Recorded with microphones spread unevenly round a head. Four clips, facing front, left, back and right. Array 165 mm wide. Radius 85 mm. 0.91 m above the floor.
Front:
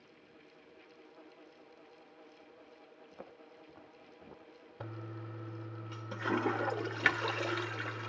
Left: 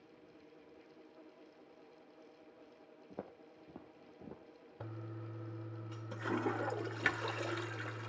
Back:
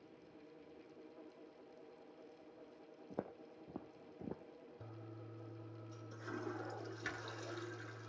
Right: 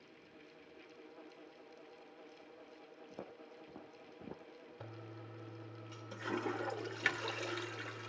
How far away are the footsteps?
About 3 m.